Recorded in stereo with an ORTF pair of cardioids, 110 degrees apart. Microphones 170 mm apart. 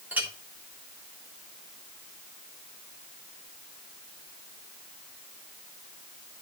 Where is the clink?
10° right, 3 m.